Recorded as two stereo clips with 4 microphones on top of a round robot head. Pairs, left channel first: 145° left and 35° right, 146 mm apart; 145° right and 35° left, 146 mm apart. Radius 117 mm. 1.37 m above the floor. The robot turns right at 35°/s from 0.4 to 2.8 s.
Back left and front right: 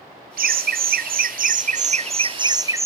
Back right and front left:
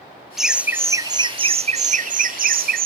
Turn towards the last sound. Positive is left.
turn(degrees=35)